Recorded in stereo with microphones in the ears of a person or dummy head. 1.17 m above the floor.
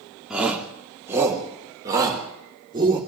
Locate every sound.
0.3 s a shout: 10° right (ahead or behind), 3 m; by 3.0 s 25° right (ahead or behind), 5 m